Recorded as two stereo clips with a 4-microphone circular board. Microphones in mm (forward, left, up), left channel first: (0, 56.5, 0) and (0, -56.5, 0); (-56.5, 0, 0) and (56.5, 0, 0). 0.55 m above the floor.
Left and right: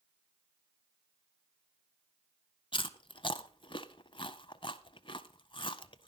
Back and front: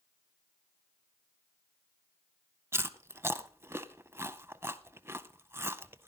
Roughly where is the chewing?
Ahead left.